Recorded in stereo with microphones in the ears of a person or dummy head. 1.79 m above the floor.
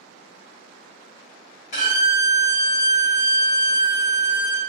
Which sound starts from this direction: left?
A violin, at 1.7 s.